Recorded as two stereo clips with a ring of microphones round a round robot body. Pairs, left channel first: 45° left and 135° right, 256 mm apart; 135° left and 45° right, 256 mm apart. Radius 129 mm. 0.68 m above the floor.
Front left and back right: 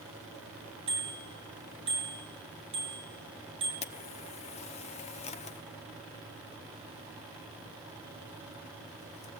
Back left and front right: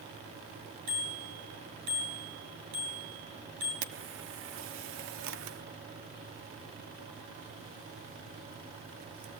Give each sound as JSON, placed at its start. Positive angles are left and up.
{"t": 0.9, "sound": "a bicycle bell", "azimuth_deg": -65, "distance_m": 7.5}
{"t": 3.8, "sound": "a camera shutter", "azimuth_deg": -20, "distance_m": 0.9}